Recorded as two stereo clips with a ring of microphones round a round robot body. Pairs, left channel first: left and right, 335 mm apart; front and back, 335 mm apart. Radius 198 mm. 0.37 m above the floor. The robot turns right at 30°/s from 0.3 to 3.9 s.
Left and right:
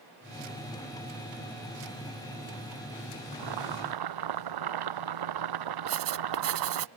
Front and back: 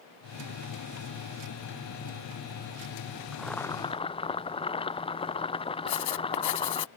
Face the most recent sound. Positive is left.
turn(degrees=-40)